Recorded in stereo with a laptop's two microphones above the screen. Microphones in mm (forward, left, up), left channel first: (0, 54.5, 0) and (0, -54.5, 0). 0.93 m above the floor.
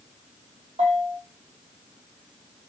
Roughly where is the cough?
No cough in this recording.